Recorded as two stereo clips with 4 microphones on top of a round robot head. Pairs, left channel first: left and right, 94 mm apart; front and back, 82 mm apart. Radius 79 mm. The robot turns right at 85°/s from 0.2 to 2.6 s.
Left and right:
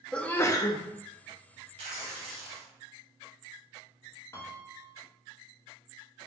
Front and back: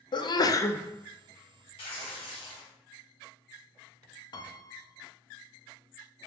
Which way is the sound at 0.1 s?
10° left.